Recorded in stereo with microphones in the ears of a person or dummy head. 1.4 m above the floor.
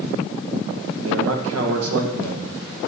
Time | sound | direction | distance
1.0 | a man speaking | 80° right | 1.1 m